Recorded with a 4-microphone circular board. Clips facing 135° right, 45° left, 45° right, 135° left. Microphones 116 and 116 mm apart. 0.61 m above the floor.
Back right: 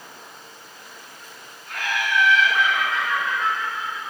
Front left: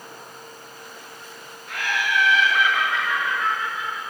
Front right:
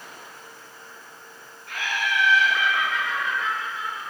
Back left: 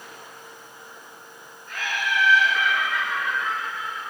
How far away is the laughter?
About 5.5 m.